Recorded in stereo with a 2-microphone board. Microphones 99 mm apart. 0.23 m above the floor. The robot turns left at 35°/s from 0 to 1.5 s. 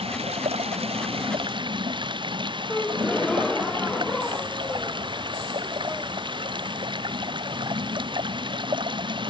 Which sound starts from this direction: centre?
A gasp, at 2.7 s.